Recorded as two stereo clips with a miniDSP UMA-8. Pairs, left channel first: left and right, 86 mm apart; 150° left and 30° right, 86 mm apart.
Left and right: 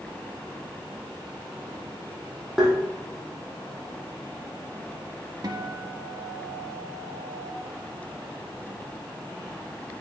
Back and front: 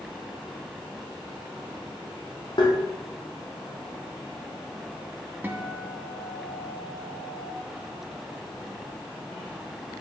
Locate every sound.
2.6 s tapping: 175° right, 2.5 m
5.4 s a guitar: 90° right, 0.9 m